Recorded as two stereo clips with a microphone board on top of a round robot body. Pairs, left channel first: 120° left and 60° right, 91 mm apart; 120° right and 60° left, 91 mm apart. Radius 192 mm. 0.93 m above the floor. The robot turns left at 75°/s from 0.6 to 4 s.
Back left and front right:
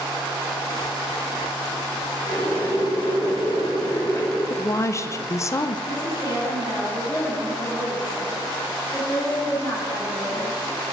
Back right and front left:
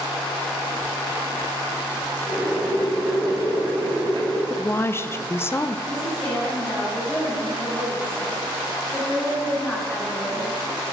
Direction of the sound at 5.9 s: 165° left.